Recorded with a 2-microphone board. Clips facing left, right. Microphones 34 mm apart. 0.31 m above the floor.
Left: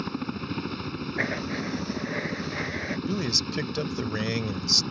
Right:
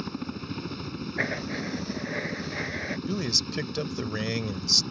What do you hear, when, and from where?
0.0 s a helicopter: 20° left (ahead or behind)
1.2 s writing: centre (ahead or behind)
3.1 s a man speaking: 5° left (ahead or behind)